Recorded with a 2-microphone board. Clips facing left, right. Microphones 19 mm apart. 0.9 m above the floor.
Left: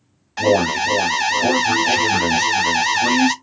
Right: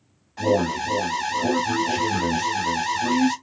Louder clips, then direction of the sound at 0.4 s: Left 5 dB; 55° left (ahead or behind).